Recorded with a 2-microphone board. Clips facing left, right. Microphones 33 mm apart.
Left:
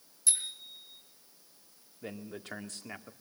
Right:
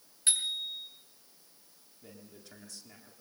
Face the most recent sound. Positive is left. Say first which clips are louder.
# left 10 dB
turn(degrees=55)  # may be behind; listen again after turning